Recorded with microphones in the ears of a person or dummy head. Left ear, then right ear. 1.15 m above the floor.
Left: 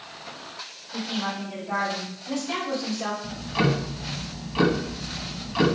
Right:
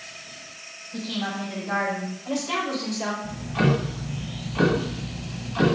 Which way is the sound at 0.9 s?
80° right.